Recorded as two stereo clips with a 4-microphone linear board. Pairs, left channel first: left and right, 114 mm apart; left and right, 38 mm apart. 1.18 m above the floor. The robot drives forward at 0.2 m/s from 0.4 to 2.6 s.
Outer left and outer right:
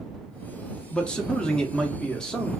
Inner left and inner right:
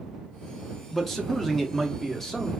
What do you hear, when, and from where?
0.9 s a man speaking: 10° left (ahead or behind), 0.6 m; by 2.5 s 5° left (ahead or behind), 0.8 m